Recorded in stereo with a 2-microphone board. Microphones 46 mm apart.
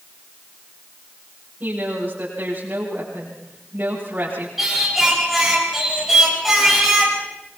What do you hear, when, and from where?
1.6 s a woman speaking: 40° right (ahead or behind), 8 m
4.6 s singing: 5° right (ahead or behind), 6 m